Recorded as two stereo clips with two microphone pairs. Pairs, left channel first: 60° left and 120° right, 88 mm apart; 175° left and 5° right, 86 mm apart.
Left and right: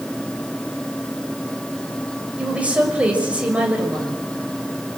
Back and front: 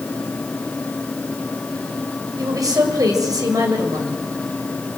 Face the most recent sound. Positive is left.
turn(degrees=-45)